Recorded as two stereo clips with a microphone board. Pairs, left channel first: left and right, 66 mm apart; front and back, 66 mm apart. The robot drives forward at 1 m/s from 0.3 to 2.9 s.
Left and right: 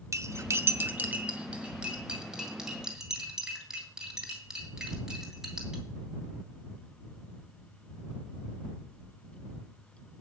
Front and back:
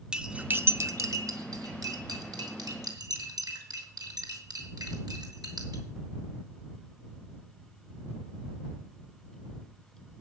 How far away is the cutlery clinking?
About 0.6 m.